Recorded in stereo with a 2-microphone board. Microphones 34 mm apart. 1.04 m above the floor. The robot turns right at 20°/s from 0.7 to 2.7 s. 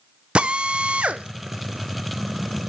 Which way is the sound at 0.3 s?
30° right (ahead or behind).